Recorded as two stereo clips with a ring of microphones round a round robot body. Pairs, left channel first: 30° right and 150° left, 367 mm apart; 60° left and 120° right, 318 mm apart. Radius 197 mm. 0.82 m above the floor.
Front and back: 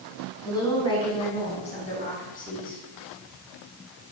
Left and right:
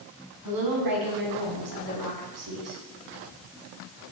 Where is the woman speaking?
110° right, 9 m; by 2.8 s 95° right, 9 m.